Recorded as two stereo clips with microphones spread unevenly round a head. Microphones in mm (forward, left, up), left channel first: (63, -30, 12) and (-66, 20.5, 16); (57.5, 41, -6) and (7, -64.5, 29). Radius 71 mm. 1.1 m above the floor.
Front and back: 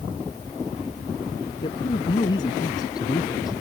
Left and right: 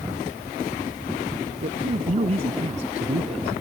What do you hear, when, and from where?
1.6 s a man speaking: 80° right; by 3.6 s 85° right